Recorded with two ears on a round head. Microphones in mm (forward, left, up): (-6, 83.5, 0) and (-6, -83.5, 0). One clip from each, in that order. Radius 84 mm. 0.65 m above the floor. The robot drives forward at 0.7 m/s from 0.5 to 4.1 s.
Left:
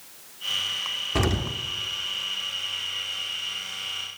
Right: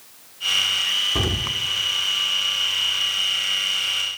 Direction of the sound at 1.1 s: 20° left (ahead or behind).